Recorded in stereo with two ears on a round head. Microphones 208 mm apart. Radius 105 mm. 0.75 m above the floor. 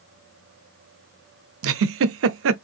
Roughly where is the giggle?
Right.